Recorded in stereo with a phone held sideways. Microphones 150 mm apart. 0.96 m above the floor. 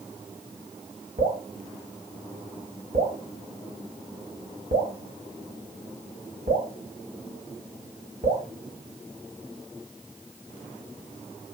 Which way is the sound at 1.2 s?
80° right.